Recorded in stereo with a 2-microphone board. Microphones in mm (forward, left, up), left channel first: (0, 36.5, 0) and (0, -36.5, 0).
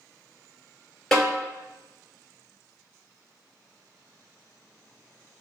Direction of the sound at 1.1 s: 10° left (ahead or behind).